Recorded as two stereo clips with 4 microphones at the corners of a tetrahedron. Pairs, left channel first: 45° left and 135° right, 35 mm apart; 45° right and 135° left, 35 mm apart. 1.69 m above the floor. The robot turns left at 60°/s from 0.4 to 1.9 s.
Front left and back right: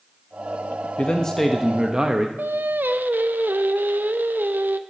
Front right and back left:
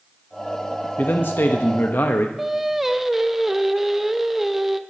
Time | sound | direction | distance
1.0 | a man speaking | 10° right | 0.9 m
2.4 | singing | 145° right | 0.7 m